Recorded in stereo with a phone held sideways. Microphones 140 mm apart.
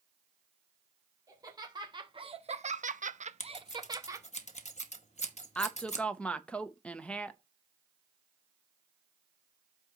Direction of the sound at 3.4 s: 55° left (ahead or behind).